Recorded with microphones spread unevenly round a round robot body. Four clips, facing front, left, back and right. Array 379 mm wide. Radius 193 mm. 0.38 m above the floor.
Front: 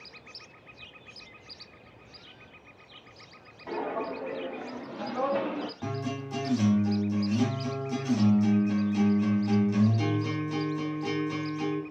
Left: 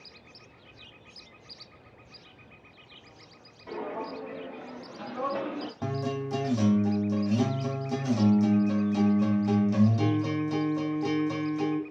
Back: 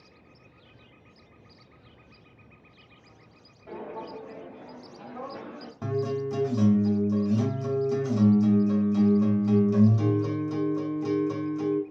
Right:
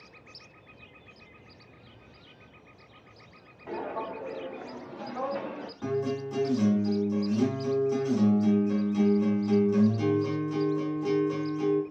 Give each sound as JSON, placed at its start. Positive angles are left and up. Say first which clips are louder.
{"t": 3.7, "sound": "footsteps", "louder": "right 1 dB, front 6 dB", "azimuth_deg": -20, "distance_m": 2.0}
{"t": 5.8, "sound": "a guitar", "louder": "right 3 dB, back 6 dB", "azimuth_deg": 135, "distance_m": 1.5}